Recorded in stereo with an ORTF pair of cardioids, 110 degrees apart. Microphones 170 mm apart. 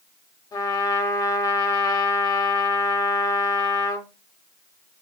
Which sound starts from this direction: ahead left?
A trumpet, at 0.5 s.